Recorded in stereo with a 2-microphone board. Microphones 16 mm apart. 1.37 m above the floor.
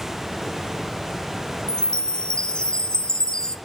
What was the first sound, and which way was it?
A chime, 65° left (ahead or behind).